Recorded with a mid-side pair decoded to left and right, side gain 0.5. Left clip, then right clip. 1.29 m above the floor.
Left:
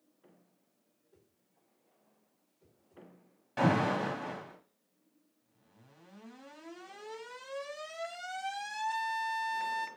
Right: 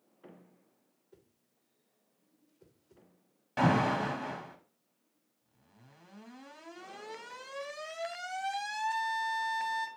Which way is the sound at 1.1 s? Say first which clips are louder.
Right 5 dB; 60° right.